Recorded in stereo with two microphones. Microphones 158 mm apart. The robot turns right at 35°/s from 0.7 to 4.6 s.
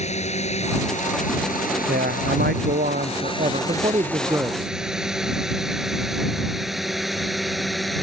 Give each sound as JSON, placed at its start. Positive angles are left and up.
{"t": 0.0, "sound": "a drone", "side_deg": 45}
{"t": 1.9, "sound": "a man speaking", "azimuth_deg": -105}